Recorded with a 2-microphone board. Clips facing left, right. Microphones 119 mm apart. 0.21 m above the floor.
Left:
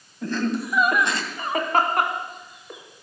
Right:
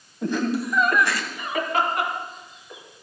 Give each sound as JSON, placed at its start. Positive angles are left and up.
{"t": 0.2, "sound": "laughter", "side_deg": -20, "distance_m": 1.3}